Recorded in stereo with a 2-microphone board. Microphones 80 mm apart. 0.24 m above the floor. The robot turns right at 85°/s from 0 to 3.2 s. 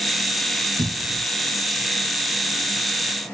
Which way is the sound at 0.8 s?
125° right.